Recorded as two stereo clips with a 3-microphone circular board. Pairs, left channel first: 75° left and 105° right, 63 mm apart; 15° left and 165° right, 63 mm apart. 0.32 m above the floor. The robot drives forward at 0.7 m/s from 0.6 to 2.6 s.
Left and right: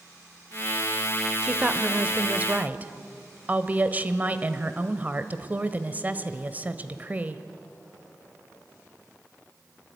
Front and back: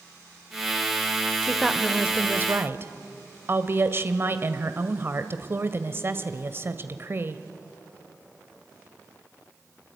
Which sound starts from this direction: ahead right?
A woman speaking, at 1.4 s.